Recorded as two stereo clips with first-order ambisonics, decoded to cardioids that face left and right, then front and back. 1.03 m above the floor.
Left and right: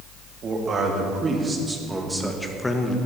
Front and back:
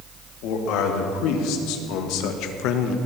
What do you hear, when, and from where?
0.4 s a man speaking: 25° right, 2 m; by 3.0 s 20° left, 1.1 m